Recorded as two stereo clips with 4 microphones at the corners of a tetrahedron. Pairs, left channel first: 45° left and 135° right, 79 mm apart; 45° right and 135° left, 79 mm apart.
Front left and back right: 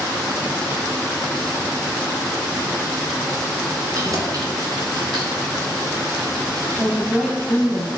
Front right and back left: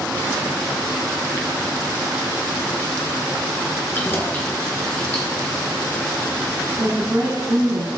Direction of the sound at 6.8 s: 140° left.